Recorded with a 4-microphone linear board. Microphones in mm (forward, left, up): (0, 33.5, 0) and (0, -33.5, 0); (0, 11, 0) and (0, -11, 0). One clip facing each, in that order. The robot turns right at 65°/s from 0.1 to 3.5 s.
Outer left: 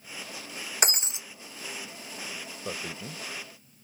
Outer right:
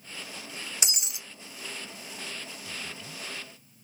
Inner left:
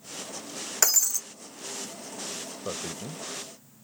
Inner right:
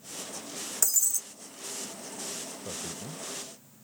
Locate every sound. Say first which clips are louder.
0.8 s breaking glass: outer left 6 dB, inner left 5 dB; 45° left (ahead or behind); by 1.2 s 20° left (ahead or behind)
2.6 s a man speaking: outer left 4 dB, inner left 6 dB; 80° left; by 3.8 s 30° left (ahead or behind)